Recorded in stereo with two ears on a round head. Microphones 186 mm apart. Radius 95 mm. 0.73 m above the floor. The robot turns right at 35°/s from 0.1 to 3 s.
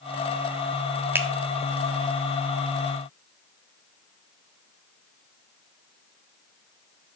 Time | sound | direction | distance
1.1 | a finger snap | 10° right (ahead or behind) | 0.7 m